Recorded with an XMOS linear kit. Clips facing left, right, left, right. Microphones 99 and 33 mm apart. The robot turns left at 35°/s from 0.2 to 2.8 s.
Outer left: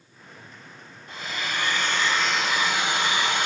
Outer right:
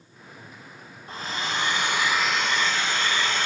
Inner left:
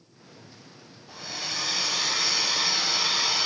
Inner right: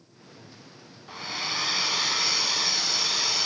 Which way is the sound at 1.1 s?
135° right.